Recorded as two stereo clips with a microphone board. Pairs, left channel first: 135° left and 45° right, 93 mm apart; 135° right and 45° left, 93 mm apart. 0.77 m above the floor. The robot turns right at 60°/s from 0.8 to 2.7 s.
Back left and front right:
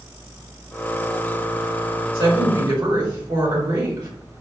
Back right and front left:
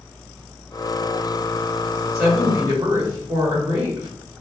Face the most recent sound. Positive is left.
turn(degrees=-5)